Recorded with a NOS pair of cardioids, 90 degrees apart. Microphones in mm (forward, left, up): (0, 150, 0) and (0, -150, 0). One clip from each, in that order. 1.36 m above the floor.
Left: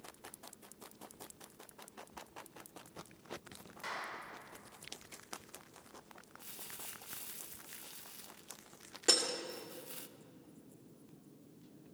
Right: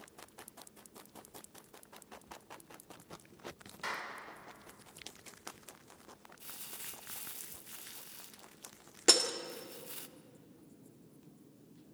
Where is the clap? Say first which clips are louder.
Right 2 dB; 35° right, 4.5 m.